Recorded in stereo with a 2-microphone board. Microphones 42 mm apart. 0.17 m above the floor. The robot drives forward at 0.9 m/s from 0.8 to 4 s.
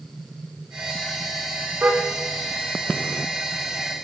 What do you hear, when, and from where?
1.8 s a car horn: 50° right (ahead or behind), 6.5 m; by 4.0 s 65° right (ahead or behind), 5.5 m